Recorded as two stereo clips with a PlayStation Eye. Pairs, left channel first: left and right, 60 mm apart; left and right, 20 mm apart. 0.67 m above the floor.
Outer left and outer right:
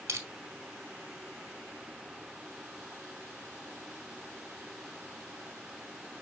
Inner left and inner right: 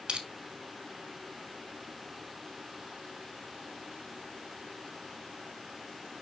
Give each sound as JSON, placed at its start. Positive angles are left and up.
{"t": 0.1, "sound": "crushing", "side_deg": -70, "distance_m": 1.3}